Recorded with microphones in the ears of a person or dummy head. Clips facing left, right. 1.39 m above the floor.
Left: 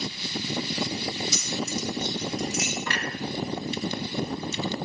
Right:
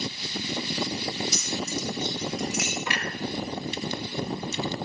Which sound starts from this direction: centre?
A clunk, at 2.9 s.